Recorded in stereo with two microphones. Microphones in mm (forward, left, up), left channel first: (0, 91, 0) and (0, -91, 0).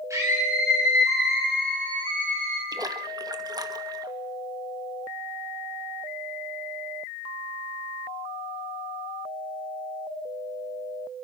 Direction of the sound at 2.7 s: 20° right (ahead or behind).